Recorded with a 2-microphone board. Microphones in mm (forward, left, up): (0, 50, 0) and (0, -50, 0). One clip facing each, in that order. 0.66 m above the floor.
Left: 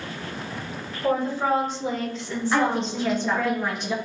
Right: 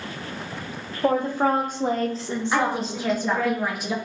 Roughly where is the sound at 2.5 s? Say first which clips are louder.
Left 2 dB; centre.